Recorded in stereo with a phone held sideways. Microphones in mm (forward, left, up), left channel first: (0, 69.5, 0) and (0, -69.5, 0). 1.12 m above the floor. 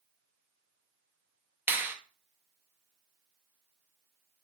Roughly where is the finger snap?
Centre.